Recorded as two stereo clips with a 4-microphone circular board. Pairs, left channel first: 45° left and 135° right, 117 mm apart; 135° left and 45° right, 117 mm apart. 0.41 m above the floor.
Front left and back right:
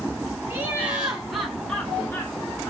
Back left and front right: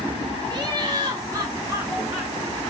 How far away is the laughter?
About 1.9 m.